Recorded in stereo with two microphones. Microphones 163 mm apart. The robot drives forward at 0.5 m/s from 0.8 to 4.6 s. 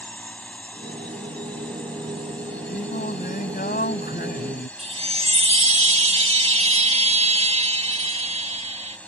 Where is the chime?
40° right (ahead or behind).